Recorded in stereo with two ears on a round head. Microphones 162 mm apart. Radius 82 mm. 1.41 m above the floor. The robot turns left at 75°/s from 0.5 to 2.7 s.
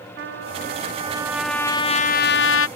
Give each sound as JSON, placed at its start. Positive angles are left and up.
{"t": 0.2, "sound": "a trumpet", "azimuth_deg": -110}